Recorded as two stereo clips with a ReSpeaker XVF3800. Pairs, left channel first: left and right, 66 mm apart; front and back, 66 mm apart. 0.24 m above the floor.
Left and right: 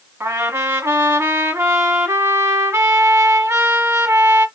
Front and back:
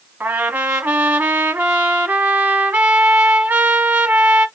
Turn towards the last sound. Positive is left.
turn(degrees=-120)